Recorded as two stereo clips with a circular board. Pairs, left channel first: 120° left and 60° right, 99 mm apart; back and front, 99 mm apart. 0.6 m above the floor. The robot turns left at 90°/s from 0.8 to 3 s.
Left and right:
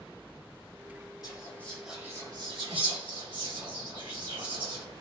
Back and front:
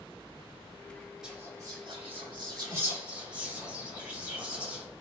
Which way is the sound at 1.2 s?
80° left.